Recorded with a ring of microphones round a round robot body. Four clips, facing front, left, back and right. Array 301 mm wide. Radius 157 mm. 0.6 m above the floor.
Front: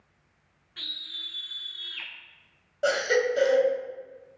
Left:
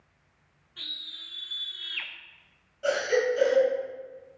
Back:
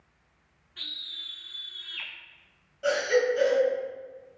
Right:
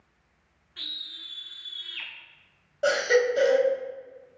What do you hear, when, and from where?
0.8 s a scream: 25° right, 1.2 m; by 2.1 s 90° left, 1.2 m
2.8 s a baby crying: 45° right, 2 m